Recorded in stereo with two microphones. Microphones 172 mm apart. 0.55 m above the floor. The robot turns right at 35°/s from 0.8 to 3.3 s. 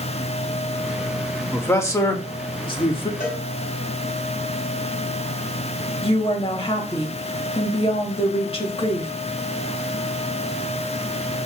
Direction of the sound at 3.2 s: 55° left (ahead or behind).